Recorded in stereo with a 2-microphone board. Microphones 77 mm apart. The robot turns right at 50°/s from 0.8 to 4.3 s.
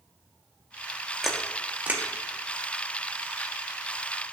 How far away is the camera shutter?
About 0.9 m.